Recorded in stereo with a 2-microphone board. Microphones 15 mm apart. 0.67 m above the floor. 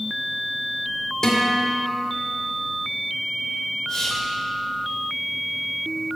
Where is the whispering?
55° left (ahead or behind), 3 m.